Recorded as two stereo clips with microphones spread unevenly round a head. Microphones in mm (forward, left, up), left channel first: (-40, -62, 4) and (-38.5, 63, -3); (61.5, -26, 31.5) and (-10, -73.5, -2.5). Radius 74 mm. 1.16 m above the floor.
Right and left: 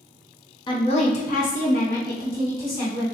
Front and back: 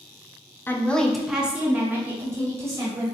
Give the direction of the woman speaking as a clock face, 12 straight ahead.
2 o'clock.